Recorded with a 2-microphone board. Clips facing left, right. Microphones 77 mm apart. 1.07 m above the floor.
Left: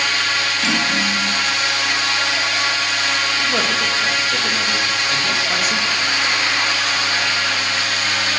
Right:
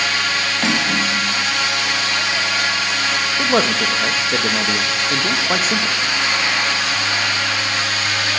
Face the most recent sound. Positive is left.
turn(degrees=-35)  # may be behind; listen again after turning